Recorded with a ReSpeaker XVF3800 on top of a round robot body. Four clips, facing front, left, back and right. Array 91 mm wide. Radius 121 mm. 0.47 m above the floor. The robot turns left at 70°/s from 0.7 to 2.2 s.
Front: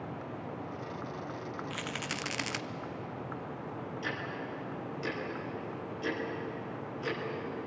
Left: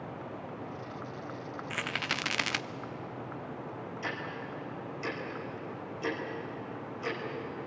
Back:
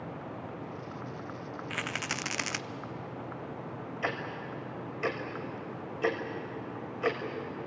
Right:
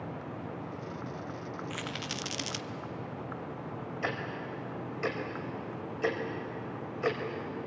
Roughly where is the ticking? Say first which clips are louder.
Right 3 dB, back 4 dB; behind right.